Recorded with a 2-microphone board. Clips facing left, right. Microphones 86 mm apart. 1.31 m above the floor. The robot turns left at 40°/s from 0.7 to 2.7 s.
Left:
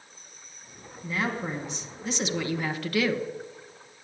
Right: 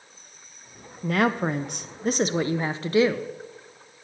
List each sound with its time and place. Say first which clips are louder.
1.0 s a woman speaking: right 7 dB; 80° right, 1.0 m; by 3.2 s 150° right, 1.0 m